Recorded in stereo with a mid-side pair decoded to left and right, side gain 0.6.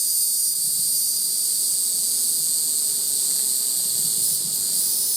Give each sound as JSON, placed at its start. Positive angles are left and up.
{"t": 0.0, "sound": "an insect", "azimuth_deg": -10, "distance_m": 2.5}